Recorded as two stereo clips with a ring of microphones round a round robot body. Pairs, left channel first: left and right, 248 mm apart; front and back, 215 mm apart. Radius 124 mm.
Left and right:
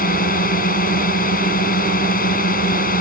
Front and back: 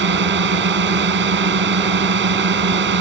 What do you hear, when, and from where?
0.0 s a drone: 145° left